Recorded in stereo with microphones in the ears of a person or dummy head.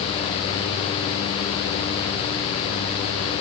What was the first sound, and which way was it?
Only background noise.